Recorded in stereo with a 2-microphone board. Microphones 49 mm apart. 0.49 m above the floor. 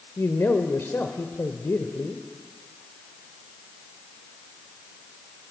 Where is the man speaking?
55° left (ahead or behind), 1.8 m.